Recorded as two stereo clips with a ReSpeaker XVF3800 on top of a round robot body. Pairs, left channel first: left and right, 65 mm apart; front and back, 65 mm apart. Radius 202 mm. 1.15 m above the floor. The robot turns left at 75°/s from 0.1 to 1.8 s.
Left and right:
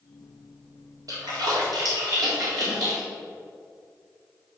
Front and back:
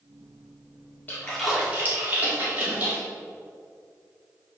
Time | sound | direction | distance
1.1 | a splash | 65° right | 3.5 m